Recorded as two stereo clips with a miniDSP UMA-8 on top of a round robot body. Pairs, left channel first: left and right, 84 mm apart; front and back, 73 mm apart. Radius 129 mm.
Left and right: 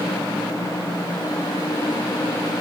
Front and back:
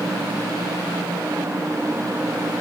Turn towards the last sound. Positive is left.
No sound to turn to.